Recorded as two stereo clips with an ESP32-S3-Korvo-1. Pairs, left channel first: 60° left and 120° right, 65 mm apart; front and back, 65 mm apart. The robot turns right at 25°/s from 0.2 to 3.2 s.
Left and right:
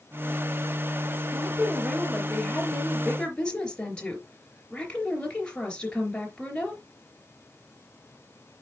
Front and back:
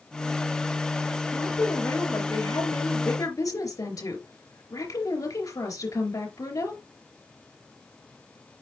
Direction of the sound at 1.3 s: 60° right.